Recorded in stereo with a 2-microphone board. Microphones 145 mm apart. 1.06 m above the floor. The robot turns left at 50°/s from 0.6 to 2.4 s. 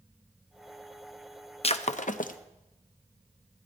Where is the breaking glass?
45° left (ahead or behind), 0.5 m; by 2.4 s 70° left (ahead or behind), 0.5 m.